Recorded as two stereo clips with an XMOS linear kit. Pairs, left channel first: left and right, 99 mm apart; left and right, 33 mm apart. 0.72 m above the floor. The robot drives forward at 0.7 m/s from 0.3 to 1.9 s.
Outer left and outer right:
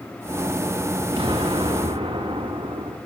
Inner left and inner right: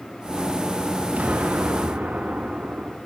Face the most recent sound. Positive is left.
turn(degrees=-55)  # may be behind; listen again after turning